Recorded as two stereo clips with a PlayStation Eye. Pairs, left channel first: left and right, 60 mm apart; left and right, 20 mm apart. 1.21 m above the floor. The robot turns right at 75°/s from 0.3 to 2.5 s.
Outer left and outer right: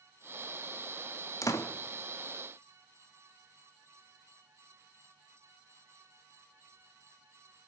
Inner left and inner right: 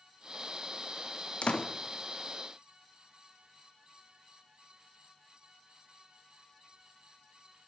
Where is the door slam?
60° left (ahead or behind), 1.2 m; by 1.7 s 75° left (ahead or behind), 1.2 m.